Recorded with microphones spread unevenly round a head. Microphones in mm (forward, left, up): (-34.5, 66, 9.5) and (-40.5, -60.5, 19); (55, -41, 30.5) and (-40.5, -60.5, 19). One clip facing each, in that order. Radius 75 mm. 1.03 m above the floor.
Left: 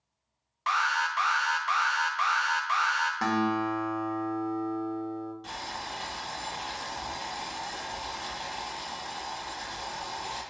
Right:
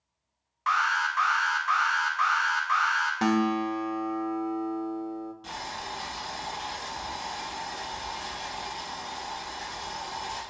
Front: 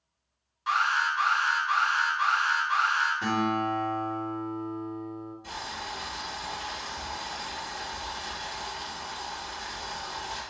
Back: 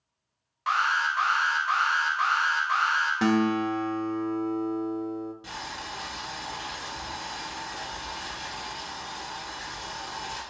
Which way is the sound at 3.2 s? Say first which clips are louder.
Right 3 dB, back 4 dB; 160° right.